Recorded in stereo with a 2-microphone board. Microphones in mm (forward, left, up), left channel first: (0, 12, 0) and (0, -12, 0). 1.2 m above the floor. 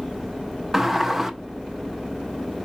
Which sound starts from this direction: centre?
A sliding door, at 0.7 s.